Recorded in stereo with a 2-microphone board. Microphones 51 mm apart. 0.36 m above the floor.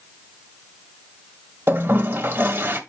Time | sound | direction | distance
1.7 | a toilet flushing | 45° right (ahead or behind) | 1.5 m